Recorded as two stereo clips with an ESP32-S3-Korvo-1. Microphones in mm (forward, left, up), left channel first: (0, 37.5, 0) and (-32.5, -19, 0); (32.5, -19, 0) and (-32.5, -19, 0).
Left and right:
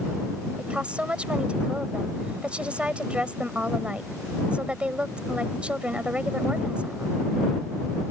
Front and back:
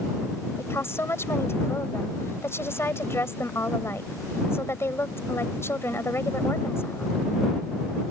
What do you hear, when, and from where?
0.6 s a woman speaking: 50° right